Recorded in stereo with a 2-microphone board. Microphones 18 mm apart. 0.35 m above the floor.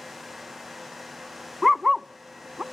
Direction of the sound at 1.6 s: 5° right (ahead or behind).